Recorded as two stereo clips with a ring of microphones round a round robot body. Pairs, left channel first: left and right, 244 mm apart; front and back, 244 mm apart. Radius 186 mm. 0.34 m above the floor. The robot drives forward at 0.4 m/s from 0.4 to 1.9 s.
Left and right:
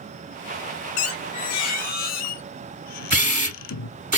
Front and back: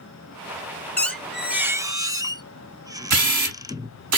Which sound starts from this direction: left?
A squeak, at 1.0 s.